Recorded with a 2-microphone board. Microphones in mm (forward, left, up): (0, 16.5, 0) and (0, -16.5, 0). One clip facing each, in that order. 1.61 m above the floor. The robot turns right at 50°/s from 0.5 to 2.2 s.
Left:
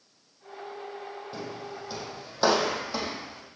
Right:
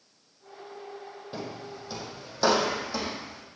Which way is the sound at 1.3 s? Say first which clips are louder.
Right 3 dB; 25° right (ahead or behind).